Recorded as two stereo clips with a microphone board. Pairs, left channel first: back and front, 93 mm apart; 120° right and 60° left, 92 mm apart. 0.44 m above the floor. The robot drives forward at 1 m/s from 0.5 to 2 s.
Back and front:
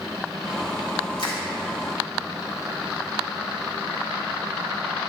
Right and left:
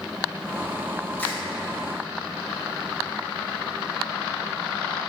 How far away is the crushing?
About 1.9 m.